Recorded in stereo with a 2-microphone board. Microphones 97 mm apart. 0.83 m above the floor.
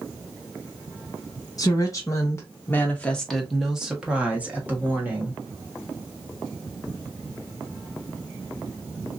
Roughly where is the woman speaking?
Left.